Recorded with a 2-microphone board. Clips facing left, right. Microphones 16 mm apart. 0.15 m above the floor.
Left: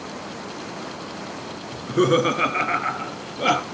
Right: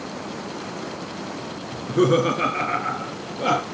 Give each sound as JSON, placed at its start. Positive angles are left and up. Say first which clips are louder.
{"t": 1.7, "sound": "laughter", "louder": "even", "side_deg": 10, "distance_m": 1.4}